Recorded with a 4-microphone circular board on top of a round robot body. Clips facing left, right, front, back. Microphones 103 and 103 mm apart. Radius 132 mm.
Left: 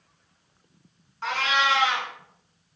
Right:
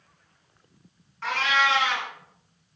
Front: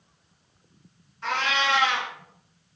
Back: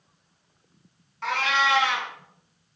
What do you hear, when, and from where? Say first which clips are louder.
1.2 s a cat meowing: even, back 2 dB; 160° left, 1.5 m